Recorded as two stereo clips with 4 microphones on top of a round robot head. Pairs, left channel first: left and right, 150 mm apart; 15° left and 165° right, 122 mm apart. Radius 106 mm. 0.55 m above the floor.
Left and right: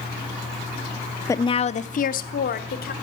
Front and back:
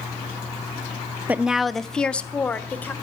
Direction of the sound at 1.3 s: 135° left.